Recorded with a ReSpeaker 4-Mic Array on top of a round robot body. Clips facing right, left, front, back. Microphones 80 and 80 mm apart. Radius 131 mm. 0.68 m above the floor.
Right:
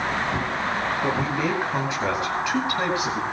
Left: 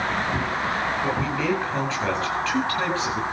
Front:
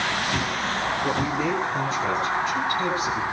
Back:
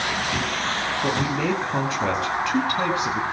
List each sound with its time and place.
1.0 s a man speaking: 160° right, 9 m; by 3.2 s 165° right, 10 m